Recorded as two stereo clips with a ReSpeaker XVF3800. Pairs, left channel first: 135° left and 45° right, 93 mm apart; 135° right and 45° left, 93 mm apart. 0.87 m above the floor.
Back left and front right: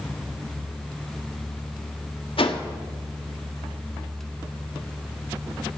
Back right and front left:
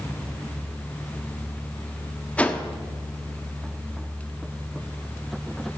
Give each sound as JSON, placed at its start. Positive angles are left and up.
{"t": 2.4, "sound": "a whoosh", "azimuth_deg": 150, "distance_m": 1.2}